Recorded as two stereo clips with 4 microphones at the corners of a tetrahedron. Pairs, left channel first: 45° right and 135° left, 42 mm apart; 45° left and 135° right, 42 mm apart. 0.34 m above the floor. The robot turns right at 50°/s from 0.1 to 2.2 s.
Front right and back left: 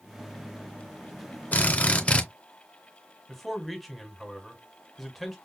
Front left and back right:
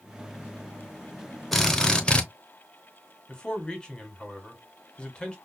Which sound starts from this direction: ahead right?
A drill, at 1.5 s.